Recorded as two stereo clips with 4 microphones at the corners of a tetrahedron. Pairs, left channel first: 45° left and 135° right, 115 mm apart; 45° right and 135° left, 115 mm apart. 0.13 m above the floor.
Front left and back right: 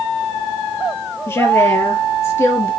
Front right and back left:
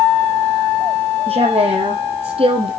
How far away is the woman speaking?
About 4.5 m.